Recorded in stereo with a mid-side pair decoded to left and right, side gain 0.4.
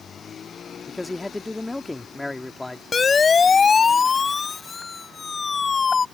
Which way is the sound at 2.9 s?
40° left.